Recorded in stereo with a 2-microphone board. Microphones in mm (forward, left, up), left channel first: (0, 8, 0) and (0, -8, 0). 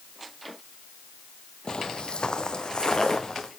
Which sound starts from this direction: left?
Footsteps, at 1.7 s.